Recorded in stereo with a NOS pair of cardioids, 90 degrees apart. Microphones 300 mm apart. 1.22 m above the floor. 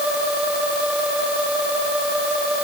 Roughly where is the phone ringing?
I don't hear a phone ringing.